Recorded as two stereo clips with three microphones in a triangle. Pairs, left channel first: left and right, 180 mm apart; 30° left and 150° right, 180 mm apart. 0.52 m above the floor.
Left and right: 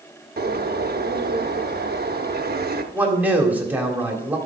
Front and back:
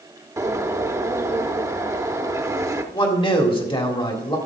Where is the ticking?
I don't hear ticking.